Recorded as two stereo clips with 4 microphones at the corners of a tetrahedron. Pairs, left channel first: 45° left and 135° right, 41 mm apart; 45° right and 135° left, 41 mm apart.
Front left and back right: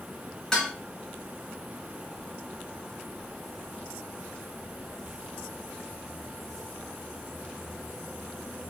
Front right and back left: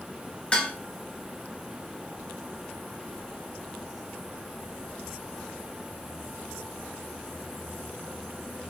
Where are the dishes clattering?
10° right, 0.9 m.